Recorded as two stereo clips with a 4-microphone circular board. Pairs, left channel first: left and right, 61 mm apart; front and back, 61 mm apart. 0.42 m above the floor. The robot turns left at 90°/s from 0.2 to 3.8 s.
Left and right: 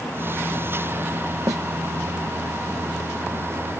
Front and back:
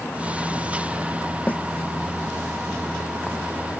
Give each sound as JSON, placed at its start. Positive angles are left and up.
{"t": 1.5, "sound": "a snare drum", "azimuth_deg": -65}